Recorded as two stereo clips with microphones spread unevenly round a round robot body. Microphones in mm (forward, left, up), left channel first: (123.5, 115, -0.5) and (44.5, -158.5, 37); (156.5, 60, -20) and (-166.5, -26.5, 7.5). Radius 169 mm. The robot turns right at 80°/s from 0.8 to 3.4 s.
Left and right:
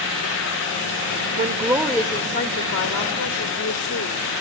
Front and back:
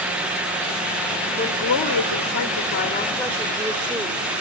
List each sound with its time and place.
1.4 s a woman speaking: 55° right, 1.0 m; by 4.2 s 110° left, 1.0 m